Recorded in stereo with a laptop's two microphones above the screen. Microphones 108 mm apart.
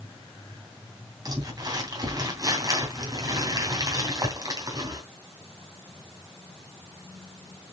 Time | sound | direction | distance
1.2 | crumpling | 35° right (ahead or behind) | 3 m